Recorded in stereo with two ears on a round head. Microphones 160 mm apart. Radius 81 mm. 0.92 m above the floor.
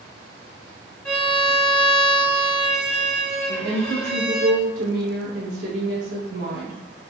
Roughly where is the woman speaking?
Right.